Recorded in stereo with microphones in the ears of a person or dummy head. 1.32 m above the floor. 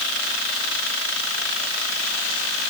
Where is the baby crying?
No baby crying in this recording.